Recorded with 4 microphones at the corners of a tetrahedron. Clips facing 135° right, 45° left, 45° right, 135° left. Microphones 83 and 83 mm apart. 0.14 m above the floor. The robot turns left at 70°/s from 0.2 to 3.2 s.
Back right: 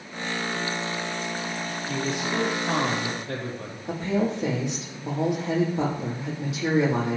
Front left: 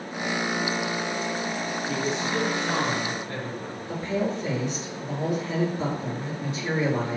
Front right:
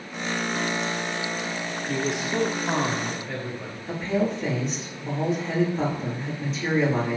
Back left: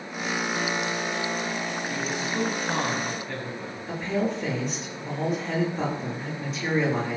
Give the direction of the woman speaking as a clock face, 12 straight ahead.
5 o'clock.